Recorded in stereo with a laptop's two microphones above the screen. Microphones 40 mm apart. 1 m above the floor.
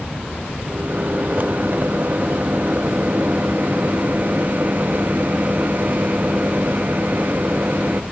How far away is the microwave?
About 1.0 m.